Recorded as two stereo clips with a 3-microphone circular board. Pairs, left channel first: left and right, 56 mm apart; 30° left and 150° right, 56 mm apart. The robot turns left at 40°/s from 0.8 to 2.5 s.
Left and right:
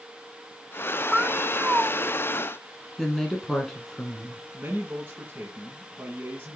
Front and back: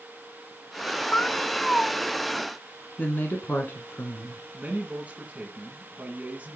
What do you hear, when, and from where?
1.1 s a cat meowing: 15° right, 0.7 m; by 1.9 s 50° right, 0.7 m
3.0 s a woman speaking: 15° left, 1.3 m
4.5 s a man speaking: 105° right, 1.9 m